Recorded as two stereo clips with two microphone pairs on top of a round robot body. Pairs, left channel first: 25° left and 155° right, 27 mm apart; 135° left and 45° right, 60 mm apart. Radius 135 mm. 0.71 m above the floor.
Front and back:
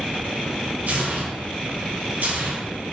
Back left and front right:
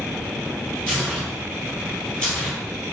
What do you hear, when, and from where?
0.9 s tearing paper: 150° right, 3.5 m